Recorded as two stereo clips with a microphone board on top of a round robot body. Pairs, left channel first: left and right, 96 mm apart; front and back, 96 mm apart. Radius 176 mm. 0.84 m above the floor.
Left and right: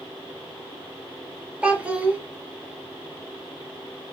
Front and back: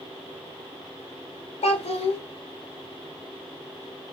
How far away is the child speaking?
About 1.2 m.